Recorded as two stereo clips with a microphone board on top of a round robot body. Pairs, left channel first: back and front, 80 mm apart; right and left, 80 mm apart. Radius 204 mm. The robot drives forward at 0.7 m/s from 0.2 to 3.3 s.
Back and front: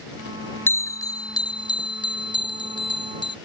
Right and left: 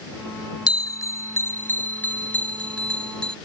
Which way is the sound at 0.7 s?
120° right.